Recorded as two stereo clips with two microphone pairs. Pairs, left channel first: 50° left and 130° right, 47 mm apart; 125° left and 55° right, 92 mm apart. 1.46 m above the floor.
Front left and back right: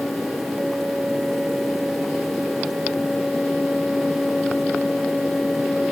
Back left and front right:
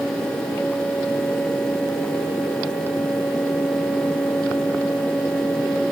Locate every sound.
Only background noise.